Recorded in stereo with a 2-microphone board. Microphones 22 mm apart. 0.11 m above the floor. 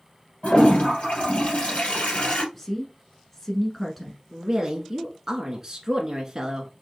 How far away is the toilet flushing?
About 3 m.